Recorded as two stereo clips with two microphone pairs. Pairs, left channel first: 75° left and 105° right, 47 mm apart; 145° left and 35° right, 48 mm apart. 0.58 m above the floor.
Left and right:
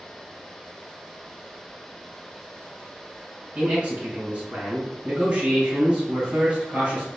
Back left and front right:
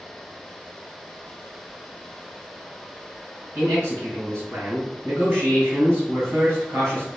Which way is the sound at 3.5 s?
55° right.